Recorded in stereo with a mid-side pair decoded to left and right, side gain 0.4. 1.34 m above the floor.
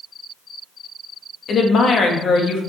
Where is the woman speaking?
60° left, 1.7 m.